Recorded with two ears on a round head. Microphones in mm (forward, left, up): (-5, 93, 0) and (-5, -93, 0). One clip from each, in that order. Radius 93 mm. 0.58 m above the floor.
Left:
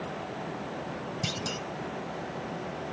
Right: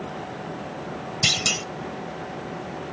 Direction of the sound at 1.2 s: 65° right (ahead or behind).